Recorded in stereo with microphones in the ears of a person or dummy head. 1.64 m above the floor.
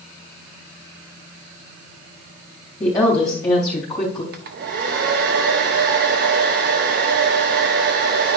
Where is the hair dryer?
45° right (ahead or behind), 0.6 m.